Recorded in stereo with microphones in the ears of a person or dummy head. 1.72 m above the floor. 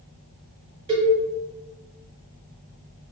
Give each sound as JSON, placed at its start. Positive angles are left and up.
{"t": 0.9, "sound": "a cowbell", "side_deg": -30, "distance_m": 1.2}